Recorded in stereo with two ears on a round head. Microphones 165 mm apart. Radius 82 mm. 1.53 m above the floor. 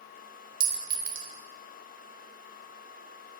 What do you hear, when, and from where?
0.6 s a clink: 50° right (ahead or behind), 0.9 m